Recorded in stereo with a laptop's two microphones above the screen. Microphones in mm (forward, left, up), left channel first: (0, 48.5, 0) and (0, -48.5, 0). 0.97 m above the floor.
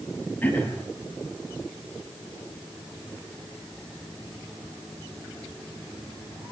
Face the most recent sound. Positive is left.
turn(degrees=20)  # may be behind; listen again after turning